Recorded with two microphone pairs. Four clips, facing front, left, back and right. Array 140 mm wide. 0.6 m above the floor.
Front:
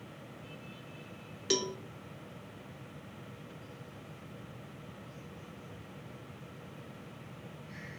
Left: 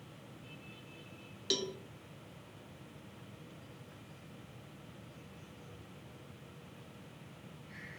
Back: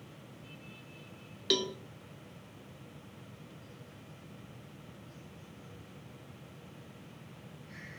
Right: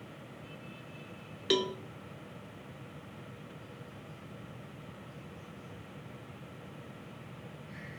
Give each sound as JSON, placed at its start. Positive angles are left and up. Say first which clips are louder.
{"t": 1.5, "sound": "a cowbell", "louder": "right 8 dB, even", "azimuth_deg": -110, "distance_m": 1.0}